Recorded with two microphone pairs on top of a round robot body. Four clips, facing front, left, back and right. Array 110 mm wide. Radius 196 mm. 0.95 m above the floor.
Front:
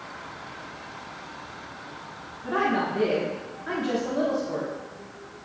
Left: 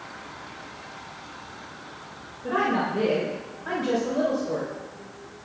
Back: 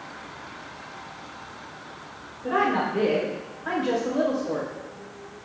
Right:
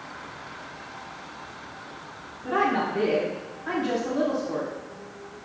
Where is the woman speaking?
150° left, 4 m.